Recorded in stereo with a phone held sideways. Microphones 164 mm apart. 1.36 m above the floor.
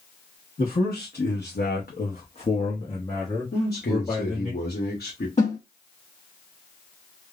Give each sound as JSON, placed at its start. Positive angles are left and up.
{"t": 0.6, "sound": "a man speaking", "side_deg": 60, "distance_m": 0.9}
{"t": 3.5, "sound": "a man speaking", "side_deg": 65, "distance_m": 0.9}
{"t": 5.4, "sound": "a snare drum", "side_deg": 45, "distance_m": 1.4}